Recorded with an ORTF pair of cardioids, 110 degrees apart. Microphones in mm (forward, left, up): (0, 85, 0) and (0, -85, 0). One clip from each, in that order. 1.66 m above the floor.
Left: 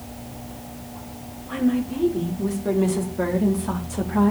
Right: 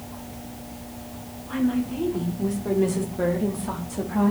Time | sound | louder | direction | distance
1.5 | a woman speaking | left 2 dB | 10° left | 5.5 m